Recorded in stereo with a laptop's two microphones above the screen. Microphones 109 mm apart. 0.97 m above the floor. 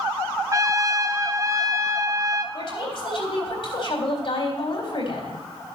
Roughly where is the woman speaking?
Left.